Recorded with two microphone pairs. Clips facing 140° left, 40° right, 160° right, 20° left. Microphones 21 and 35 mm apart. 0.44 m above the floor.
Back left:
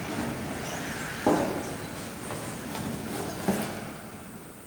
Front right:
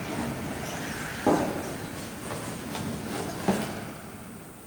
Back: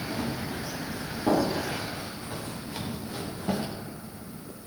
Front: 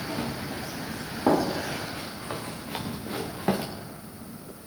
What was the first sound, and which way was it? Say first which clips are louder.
Running footsteps: even, even; 60° left.